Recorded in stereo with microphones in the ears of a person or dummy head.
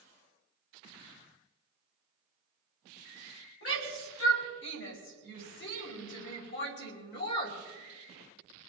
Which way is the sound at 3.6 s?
75° left (ahead or behind).